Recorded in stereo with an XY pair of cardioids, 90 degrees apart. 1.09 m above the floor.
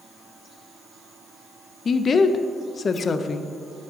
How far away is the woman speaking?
About 0.5 m.